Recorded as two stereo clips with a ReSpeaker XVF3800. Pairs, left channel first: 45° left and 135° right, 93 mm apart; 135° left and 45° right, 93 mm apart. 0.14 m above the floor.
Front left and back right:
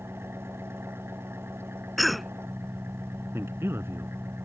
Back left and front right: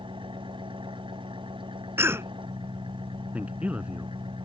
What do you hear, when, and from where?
0.0 s an engine running: 70° right
2.0 s a cough: 45° right
3.3 s a man speaking: 105° right